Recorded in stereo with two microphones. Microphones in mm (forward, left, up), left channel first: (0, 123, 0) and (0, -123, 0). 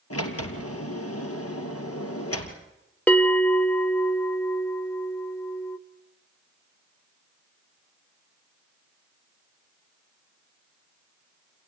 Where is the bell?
5° left (ahead or behind), 0.9 m.